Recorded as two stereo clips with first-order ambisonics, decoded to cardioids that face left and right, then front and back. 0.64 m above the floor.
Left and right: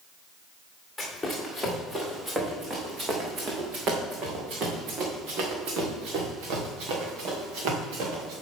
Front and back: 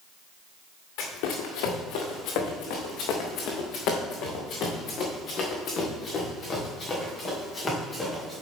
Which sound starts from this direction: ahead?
Running footsteps, at 1.0 s.